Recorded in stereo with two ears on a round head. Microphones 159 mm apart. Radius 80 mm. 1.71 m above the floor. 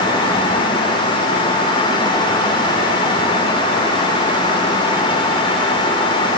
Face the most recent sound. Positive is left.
No sound to turn to.